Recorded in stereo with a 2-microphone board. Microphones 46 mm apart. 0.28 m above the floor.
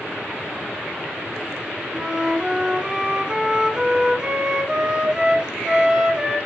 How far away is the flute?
About 1.9 m.